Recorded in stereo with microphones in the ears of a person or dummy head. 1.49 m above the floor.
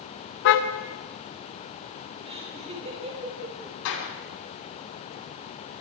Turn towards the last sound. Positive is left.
turn(degrees=85)